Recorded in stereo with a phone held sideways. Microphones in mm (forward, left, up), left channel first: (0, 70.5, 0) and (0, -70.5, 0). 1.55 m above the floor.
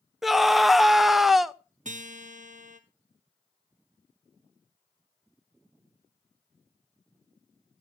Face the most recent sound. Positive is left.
turn(degrees=-60)  # may be behind; listen again after turning